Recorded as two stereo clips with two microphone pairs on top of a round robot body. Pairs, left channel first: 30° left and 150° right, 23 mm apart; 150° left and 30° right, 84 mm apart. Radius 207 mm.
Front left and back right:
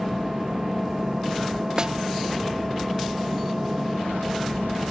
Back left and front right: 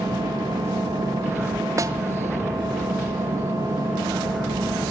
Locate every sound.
0.0 s an engine running: 80° right, 8.5 m
1.8 s a snare drum: 85° right, 1.6 m